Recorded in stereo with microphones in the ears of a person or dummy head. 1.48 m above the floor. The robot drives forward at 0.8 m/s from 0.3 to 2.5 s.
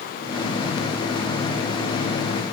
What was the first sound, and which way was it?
Only background noise.